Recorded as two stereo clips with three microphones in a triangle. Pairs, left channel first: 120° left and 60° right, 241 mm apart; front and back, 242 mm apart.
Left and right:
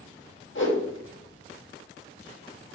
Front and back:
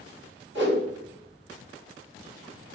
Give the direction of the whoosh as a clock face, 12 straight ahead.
7 o'clock.